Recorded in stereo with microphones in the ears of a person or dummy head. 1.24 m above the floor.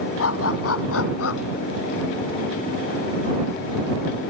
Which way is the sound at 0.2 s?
80° left.